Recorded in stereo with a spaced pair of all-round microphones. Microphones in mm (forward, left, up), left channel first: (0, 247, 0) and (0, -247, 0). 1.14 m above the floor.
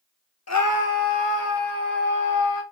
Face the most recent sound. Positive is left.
turn(degrees=65)  # may be behind; listen again after turning